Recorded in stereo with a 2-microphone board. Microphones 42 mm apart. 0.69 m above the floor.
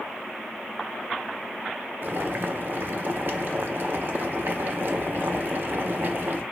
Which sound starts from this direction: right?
Boiling, at 2.0 s.